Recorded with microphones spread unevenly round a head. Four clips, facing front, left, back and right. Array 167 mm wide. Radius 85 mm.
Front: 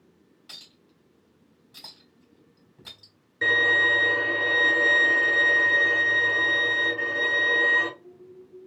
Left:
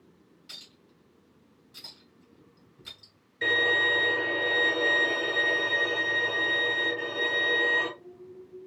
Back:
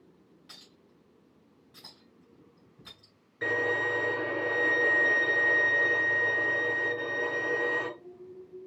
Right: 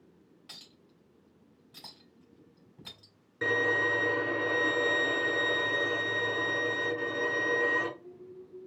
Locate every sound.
0.5 s a clink: 55° right, 3.5 m
3.4 s a violin: 70° right, 3.5 m